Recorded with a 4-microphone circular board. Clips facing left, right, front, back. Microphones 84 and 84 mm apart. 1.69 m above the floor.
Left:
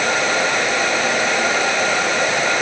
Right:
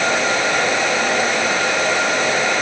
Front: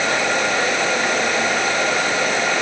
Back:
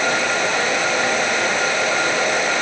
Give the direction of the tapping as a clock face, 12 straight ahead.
No tapping in this recording.